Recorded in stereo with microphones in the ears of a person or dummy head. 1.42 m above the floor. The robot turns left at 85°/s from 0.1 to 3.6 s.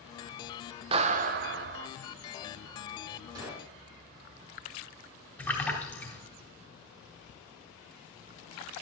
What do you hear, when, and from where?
0.9 s a clap: 40° right, 0.6 m; by 1.9 s 125° right, 0.6 m
3.4 s a gunshot: 20° right (ahead or behind), 1.3 m; by 3.7 s 10° right (ahead or behind), 1.3 m
5.4 s a splash: 5° left (ahead or behind), 2.5 m